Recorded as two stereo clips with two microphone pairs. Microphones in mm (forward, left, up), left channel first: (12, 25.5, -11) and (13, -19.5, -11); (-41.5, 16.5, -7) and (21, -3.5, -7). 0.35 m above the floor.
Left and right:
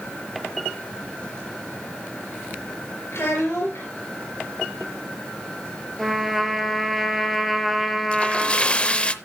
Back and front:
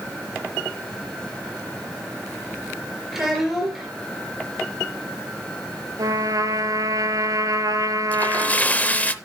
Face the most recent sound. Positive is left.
turn(degrees=120)